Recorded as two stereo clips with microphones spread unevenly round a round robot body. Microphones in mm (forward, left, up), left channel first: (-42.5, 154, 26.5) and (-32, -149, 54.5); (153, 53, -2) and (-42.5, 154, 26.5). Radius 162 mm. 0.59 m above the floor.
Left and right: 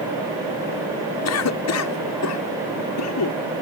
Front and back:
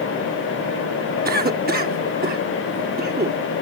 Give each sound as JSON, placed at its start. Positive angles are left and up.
{"t": 1.2, "sound": "a cough", "azimuth_deg": 105}